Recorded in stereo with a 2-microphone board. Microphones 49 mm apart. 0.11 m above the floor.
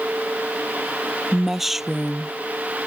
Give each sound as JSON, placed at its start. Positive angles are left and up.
{"t": 1.3, "sound": "a woman speaking", "side_deg": -5}